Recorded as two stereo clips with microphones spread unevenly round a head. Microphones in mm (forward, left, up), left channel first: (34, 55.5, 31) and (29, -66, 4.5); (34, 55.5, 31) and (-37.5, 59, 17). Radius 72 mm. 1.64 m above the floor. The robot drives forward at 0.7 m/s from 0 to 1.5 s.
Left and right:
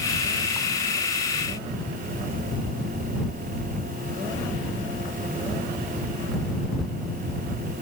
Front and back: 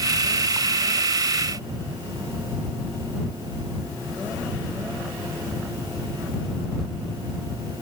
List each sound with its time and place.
Only background noise.